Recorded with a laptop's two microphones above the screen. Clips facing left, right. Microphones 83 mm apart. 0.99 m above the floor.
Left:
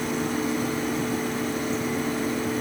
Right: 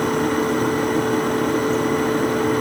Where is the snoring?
I don't hear snoring.